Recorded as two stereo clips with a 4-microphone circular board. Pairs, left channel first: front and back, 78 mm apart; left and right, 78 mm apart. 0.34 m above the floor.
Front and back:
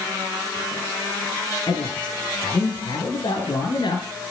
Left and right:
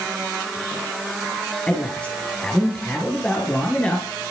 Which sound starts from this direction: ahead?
A man speaking, at 1.7 s.